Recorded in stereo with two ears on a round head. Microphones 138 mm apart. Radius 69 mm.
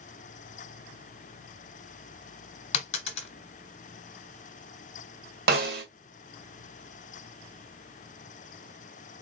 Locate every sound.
2.7 s a dropped coin: 45° left (ahead or behind), 1.0 m
5.5 s a snare drum: 70° right (ahead or behind), 1.7 m